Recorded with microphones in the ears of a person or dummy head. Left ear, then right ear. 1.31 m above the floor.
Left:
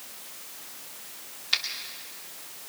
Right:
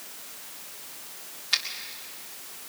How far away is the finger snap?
About 2 m.